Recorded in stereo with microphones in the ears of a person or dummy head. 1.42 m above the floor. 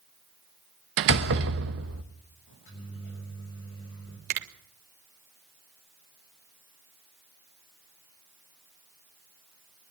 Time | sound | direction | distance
1.0 | a door slam | 65° right (ahead or behind) | 1.1 m
2.5 | a microwave | 60° left (ahead or behind) | 6.5 m
4.3 | a finger snap | 45° right (ahead or behind) | 1.7 m